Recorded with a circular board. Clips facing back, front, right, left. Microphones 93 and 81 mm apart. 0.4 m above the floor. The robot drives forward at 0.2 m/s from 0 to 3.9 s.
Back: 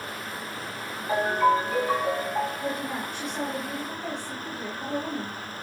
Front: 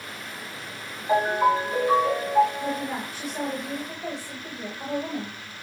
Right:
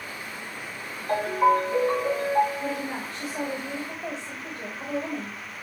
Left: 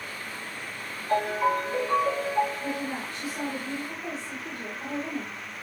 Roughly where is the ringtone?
Right.